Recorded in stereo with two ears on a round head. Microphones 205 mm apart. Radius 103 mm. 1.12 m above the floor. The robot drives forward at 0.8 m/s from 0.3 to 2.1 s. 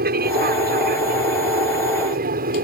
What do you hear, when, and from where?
0.0 s an aircraft: 45° right (ahead or behind); by 2.6 s 40° right (ahead or behind)